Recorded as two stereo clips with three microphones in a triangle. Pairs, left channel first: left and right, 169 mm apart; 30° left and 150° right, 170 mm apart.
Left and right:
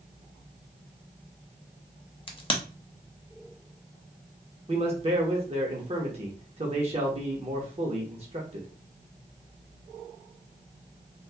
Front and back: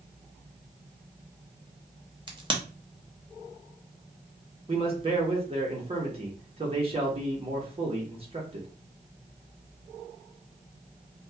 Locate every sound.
2.3 s a crack: 150° left, 0.6 m
4.7 s a man speaking: 120° right, 0.7 m